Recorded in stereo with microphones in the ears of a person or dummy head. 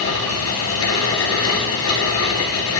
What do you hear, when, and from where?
0.0 s a fan: 85° left, 2 m